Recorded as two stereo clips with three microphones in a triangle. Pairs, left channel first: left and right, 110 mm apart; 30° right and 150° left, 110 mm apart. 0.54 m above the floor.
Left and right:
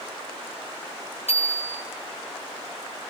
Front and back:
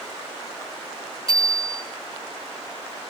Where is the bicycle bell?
95° left, 5.5 m.